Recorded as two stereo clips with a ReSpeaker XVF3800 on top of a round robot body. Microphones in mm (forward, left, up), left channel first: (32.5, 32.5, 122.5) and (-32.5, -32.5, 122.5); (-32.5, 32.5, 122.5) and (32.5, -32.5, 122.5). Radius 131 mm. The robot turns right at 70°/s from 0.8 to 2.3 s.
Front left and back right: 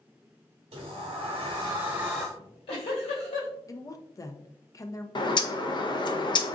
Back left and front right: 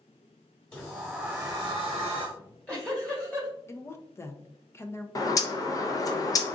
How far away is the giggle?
About 2 m.